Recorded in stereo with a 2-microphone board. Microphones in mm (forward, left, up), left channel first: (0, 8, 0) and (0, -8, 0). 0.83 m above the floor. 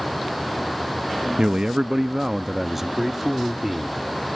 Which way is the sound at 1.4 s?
50° right (ahead or behind).